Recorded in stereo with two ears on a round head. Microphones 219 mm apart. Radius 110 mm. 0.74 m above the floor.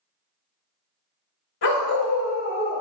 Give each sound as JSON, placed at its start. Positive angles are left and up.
{"t": 1.6, "sound": "a dog barking", "side_deg": 75, "distance_m": 1.4}